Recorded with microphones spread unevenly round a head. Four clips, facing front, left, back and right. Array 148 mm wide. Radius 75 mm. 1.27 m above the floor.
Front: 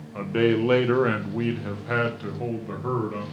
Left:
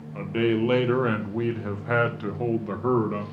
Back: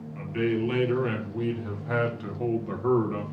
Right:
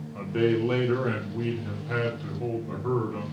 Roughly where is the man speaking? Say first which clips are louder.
Left 1 dB, front 5 dB; ahead.